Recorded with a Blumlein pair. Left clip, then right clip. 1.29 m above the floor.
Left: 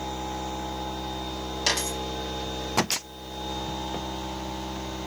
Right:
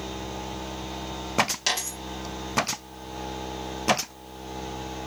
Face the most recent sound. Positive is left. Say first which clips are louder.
# left 1 dB
turn(degrees=5)